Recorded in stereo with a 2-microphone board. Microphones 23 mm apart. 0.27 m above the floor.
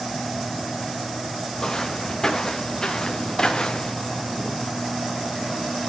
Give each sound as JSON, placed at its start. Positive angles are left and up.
{"t": 1.6, "sound": "footsteps", "side_deg": 20, "distance_m": 5.5}